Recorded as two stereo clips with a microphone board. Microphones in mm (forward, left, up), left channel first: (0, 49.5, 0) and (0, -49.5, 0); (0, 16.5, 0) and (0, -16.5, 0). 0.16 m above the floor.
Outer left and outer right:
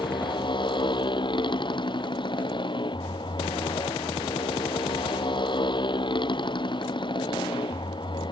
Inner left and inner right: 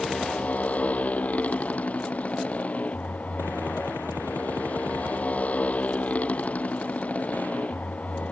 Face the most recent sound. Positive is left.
turn(degrees=50)  # may be behind; listen again after turning